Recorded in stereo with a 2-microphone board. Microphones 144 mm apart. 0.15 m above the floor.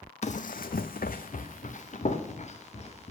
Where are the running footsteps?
50° left (ahead or behind), 0.6 m.